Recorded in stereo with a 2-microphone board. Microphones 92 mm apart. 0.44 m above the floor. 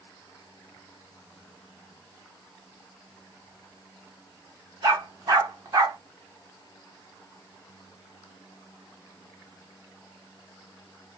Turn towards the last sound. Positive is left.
turn(degrees=-40)  # may be behind; listen again after turning